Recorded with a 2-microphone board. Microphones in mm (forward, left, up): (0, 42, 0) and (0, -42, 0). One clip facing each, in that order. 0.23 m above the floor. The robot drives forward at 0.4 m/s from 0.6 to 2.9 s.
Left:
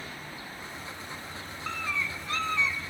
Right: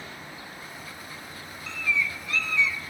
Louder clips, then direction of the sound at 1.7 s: Right 4 dB; 50° left (ahead or behind).